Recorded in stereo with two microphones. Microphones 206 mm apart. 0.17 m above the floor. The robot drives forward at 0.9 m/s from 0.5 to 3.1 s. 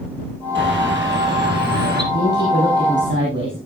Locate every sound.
0.6 s a bird: 60° right (ahead or behind), 5.5 m; by 2.0 s 50° right (ahead or behind), 6 m
2.1 s a woman speaking: 50° right (ahead or behind), 5.5 m; by 3.6 s 60° right (ahead or behind), 5 m